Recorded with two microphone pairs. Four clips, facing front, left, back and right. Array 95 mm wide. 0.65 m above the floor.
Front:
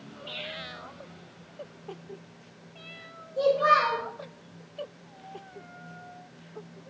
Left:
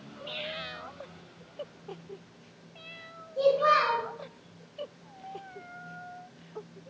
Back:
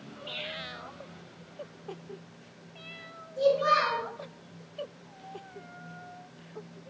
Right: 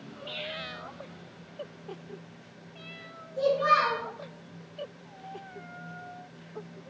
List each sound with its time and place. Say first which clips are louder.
3.4 s a child speaking: left 1 dB, front 2 dB; 10° left, 1.3 m